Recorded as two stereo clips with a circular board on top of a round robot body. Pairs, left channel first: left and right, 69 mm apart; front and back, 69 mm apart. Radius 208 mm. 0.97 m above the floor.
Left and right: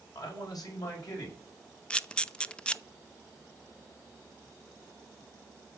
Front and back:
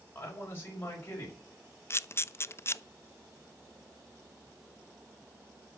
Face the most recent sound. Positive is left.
turn(degrees=20)